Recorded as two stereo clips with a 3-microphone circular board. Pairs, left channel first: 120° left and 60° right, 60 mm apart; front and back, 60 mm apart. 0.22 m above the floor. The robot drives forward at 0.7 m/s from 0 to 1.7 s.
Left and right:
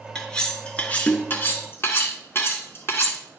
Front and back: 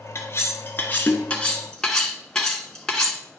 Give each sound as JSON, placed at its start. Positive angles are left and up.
{"t": 0.1, "sound": "cutlery clinking", "azimuth_deg": 45, "distance_m": 2.0}